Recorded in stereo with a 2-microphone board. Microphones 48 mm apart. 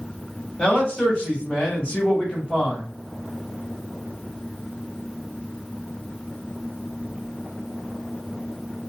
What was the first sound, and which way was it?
A man speaking, 25° left (ahead or behind).